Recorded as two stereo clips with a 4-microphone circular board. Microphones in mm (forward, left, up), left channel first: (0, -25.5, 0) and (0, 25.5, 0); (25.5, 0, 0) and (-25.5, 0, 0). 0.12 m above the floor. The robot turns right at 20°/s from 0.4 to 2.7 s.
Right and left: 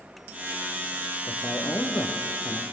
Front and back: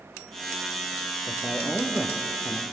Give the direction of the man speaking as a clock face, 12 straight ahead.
4 o'clock.